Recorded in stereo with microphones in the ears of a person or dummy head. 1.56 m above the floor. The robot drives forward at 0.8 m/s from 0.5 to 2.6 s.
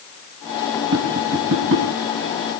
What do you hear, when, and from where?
0.9 s tapping: 75° right (ahead or behind), 6 m; by 1.9 s 70° right (ahead or behind), 6 m